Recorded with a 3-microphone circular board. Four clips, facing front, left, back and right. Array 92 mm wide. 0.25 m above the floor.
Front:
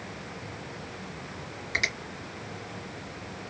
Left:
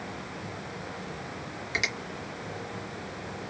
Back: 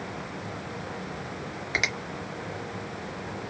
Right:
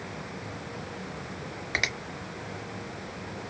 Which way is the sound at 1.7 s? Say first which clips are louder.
Right 1 dB, back 2 dB; 135° right.